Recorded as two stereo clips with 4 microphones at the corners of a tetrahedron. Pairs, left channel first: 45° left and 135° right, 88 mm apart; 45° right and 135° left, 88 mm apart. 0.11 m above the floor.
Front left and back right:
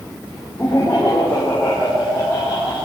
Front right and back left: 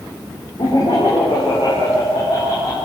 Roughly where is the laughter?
Ahead.